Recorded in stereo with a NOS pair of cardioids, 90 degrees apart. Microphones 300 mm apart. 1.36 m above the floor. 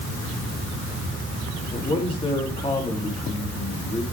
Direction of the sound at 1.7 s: 20° left.